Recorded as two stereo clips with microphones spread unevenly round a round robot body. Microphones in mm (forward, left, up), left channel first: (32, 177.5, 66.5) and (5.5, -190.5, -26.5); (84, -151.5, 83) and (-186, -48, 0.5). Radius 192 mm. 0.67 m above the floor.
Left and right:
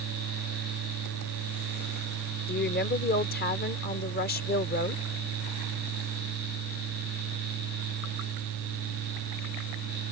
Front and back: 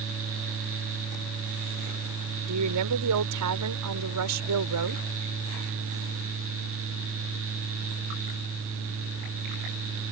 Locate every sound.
2.5 s a woman speaking: 155° left